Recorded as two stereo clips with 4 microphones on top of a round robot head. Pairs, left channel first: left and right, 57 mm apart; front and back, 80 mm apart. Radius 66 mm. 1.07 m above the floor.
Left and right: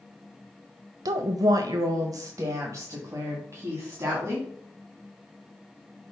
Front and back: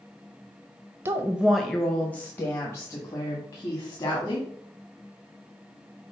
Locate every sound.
1.1 s a woman speaking: 115° right, 0.6 m; by 4.5 s 50° right, 2 m